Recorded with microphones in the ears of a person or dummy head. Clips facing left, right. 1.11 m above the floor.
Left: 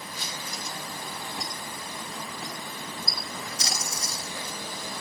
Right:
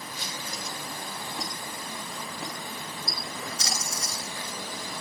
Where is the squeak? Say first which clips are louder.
Right 1 dB; 5° left (ahead or behind), 2 m.